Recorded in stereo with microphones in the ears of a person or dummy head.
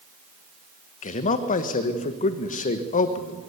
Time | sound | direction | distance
1.0 | a man speaking | 35° left (ahead or behind) | 1.5 m